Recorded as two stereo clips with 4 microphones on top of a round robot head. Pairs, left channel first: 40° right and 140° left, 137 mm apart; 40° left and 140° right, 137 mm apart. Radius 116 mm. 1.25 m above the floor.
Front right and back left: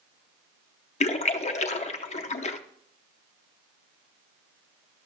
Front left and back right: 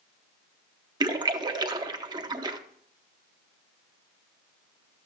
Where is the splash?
80° right, 0.9 m.